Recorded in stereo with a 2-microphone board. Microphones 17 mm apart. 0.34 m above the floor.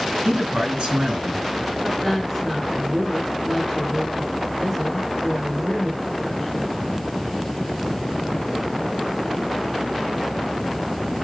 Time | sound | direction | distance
0.2 | a man speaking | 65° right (ahead or behind) | 4 m
1.8 | a woman speaking | 10° right (ahead or behind) | 2.5 m